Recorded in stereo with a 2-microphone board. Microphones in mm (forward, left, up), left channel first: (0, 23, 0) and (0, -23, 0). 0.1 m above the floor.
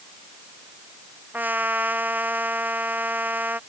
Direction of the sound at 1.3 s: 40° right (ahead or behind).